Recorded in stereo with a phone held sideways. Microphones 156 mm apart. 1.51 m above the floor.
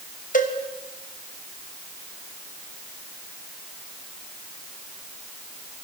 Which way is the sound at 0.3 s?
60° left (ahead or behind).